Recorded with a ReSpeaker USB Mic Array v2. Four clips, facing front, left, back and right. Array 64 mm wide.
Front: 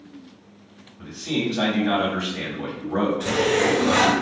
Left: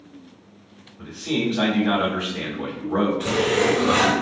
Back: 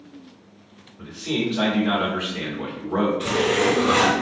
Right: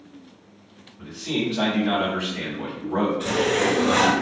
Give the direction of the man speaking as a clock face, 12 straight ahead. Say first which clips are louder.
Left 2 dB, even; 6 o'clock.